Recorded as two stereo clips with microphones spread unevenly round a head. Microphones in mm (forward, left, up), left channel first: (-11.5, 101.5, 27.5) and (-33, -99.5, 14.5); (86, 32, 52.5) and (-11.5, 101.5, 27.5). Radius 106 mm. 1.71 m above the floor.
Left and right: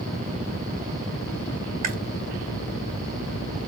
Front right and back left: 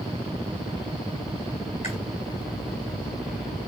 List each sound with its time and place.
1.8 s chewing: 95° right, 1.4 m